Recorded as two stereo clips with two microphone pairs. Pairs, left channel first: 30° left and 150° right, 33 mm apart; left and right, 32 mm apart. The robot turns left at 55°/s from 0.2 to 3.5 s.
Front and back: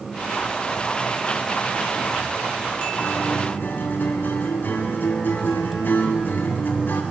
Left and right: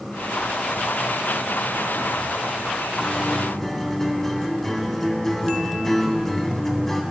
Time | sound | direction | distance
3.0 | a guitar | 35° left | 2 m